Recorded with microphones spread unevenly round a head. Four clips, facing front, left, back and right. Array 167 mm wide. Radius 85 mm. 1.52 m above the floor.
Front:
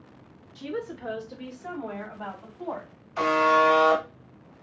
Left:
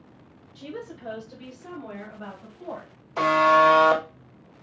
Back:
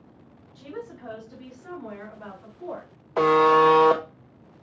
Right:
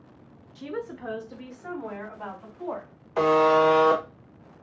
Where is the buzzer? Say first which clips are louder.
Left 1 dB, back 4 dB; 160° right, 1.3 m.